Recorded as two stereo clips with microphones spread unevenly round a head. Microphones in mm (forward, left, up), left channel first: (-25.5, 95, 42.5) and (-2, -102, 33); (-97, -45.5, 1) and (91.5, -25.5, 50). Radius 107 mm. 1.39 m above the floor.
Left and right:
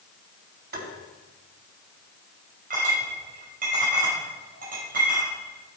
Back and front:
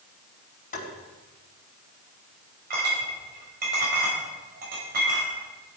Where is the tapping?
125° right, 4.5 m.